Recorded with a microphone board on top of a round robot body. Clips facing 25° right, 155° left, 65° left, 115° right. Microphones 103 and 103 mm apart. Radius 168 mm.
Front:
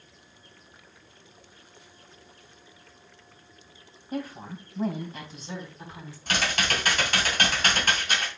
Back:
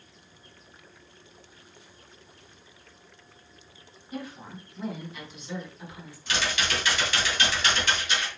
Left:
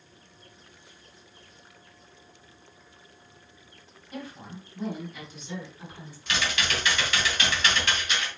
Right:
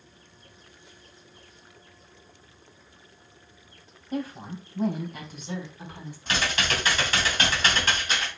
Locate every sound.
4.1 s a woman speaking: 65° right, 3 m; by 6.2 s 80° right, 4 m
6.3 s typing on a keyboard: 65° right, 2.5 m